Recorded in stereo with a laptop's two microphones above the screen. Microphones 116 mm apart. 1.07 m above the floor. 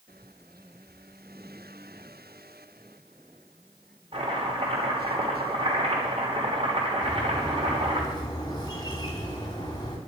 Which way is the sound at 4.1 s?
50° right (ahead or behind).